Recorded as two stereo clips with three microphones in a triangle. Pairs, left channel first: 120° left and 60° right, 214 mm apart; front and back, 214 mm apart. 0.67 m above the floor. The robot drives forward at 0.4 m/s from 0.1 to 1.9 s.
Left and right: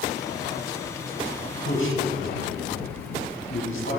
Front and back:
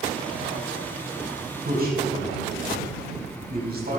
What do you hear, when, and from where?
1.6 s a man speaking: 135° left, 4 m